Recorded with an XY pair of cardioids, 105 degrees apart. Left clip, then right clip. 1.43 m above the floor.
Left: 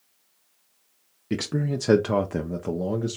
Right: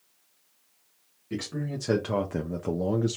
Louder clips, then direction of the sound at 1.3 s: Left 6 dB; 70° left.